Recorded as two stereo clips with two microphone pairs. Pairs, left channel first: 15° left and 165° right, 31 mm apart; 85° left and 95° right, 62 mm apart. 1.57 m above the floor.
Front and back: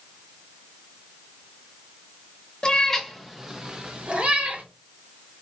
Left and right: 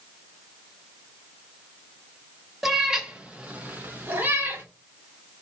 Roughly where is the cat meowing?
Ahead.